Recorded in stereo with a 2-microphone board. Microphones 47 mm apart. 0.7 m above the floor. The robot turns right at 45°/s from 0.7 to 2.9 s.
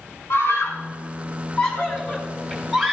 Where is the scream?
85° left, 8 m; by 2.9 s 10° right (ahead or behind), 8 m.